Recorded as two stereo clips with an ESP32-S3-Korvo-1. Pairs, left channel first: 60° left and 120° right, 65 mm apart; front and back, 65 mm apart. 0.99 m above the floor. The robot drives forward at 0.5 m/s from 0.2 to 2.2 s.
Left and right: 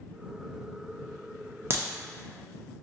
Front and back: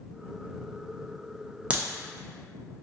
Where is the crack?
125° right, 0.7 m; by 1.8 s 130° right, 0.7 m.